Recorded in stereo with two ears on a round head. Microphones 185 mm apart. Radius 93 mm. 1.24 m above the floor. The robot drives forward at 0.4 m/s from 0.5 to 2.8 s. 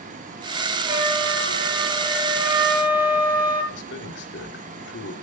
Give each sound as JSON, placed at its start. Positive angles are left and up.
{"t": 0.8, "sound": "a flute", "side_deg": -10, "distance_m": 8.5}
{"t": 3.7, "sound": "a man speaking", "side_deg": 60, "distance_m": 3.0}